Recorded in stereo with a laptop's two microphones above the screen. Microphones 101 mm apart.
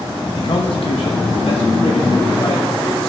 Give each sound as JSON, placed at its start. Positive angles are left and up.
{"t": 0.4, "sound": "a man speaking", "side_deg": 55, "distance_m": 0.8}